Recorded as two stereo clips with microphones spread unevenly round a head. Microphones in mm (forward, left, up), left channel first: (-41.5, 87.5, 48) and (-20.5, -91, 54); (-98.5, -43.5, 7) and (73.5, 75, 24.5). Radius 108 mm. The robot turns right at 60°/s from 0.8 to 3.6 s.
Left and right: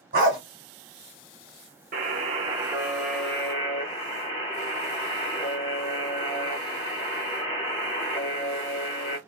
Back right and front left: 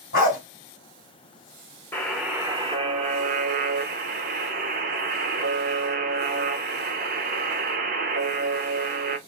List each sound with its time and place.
0.1 s a dog barking: 100° right, 1.6 m
1.9 s a buzzer: 65° right, 0.7 m; by 9.2 s 35° left, 0.7 m